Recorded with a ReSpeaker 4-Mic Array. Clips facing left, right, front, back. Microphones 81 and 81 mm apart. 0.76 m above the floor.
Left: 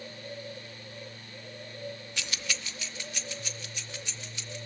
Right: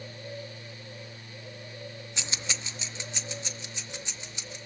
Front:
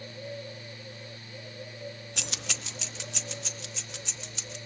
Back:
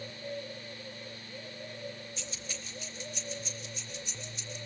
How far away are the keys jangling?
About 0.5 m.